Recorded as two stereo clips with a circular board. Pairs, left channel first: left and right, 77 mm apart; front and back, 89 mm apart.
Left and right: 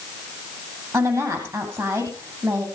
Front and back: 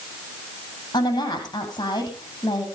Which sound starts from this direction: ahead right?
A woman speaking, at 0.9 s.